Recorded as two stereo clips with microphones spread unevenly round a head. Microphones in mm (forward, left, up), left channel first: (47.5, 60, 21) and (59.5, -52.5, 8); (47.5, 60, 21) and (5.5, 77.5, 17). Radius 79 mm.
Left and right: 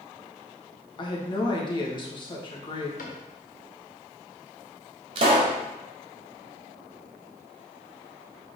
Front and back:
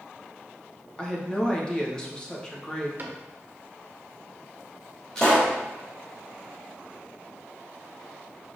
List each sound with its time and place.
1.0 s a woman speaking: 50° left, 1.9 m
3.0 s a cupboard door: 110° left, 1.4 m
5.2 s a pop: 90° right, 1.5 m